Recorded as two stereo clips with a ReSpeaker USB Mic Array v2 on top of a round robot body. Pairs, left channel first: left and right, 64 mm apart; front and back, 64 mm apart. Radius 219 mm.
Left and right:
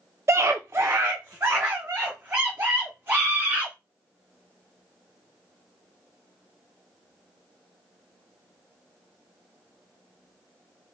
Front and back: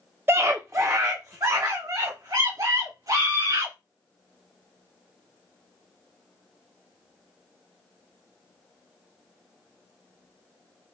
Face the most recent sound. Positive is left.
turn(degrees=-150)